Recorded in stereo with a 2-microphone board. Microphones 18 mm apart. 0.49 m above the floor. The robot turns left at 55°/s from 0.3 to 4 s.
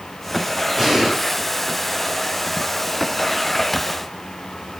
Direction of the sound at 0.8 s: 5° right (ahead or behind).